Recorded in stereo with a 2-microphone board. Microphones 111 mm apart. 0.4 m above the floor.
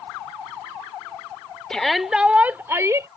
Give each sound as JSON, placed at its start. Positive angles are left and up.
{"t": 1.7, "sound": "a shout", "side_deg": 5}